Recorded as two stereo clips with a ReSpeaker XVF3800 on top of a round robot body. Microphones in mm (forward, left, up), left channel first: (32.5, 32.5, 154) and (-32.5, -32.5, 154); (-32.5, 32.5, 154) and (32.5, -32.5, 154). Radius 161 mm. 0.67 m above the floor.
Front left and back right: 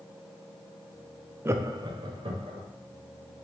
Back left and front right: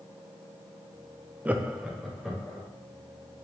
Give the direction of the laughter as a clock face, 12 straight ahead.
3 o'clock.